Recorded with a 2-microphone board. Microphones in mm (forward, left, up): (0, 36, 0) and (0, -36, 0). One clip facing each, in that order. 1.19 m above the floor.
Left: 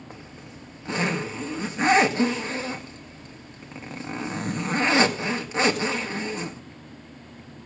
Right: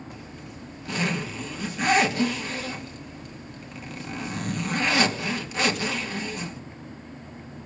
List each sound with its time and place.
0.1 s a zipper: 30° left (ahead or behind), 1.9 m